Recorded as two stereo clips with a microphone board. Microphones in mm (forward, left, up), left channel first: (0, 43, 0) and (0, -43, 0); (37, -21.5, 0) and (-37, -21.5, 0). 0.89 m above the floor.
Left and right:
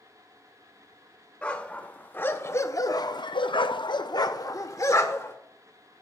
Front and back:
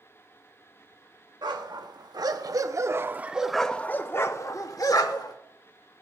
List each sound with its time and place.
1.4 s a dog barking: 165° left, 1.4 m; by 5.4 s 30° left, 1.3 m